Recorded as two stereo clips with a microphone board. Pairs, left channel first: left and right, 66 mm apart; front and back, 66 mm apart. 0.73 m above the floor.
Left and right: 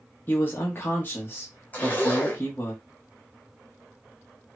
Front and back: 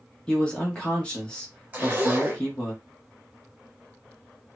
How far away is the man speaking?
About 1.0 m.